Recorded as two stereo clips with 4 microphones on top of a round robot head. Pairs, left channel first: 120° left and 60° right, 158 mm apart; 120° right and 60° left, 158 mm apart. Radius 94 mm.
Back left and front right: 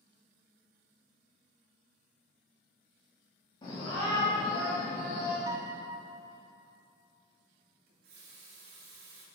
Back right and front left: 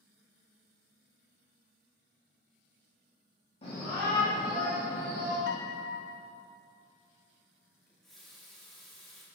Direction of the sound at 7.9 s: 30° right.